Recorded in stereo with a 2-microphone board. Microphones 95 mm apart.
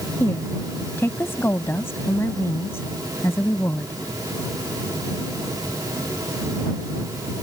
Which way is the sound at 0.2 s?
25° left (ahead or behind).